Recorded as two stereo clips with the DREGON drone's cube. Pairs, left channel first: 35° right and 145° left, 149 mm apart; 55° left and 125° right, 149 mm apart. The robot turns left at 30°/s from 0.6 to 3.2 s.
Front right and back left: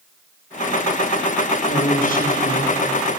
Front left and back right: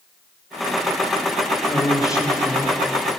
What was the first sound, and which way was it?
A woman speaking, 25° right.